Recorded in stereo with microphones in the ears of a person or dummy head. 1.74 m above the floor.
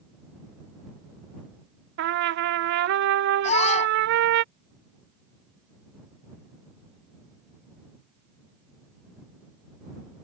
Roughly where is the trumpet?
Right.